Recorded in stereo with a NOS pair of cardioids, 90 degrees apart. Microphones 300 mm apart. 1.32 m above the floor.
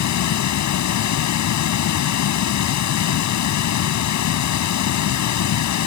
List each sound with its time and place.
0.0 s running water: 65° left